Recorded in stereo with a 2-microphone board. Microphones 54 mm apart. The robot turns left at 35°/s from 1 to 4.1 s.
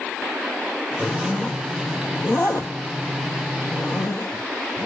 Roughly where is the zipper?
Centre.